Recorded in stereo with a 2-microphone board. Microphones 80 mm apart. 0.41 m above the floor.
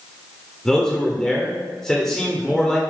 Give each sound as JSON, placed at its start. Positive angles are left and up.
{"t": 0.7, "sound": "a man speaking", "side_deg": 5, "distance_m": 1.0}